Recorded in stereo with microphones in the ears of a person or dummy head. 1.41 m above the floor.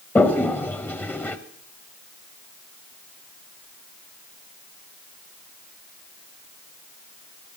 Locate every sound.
0.1 s a toilet flushing: 5° left (ahead or behind), 0.6 m